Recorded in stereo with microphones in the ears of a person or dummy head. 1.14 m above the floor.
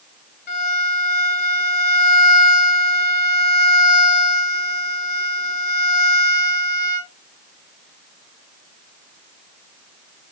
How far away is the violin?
About 1.9 m.